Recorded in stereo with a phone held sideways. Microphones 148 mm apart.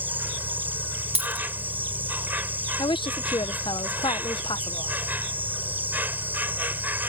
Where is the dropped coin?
45° right (ahead or behind).